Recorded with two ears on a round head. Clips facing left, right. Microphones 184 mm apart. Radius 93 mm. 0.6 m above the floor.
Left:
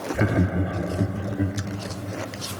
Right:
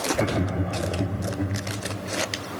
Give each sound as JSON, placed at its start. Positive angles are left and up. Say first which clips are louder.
{"t": 0.1, "sound": "laughter", "louder": "left 2 dB", "side_deg": 10, "distance_m": 0.9}